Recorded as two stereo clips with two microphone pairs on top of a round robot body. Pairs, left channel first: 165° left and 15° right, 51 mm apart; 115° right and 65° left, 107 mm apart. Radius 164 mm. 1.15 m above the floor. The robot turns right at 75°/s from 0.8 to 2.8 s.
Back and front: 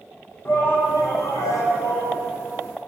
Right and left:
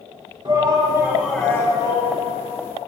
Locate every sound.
0.5 s a shout: 115° left, 1.5 m; by 2.2 s 140° right, 1.5 m